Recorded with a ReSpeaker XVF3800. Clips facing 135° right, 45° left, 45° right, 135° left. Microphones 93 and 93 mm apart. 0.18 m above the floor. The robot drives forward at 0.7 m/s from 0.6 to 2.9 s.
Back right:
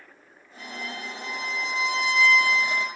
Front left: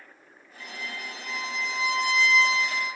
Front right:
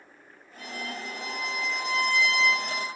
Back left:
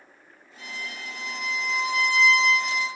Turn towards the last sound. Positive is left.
turn(degrees=-10)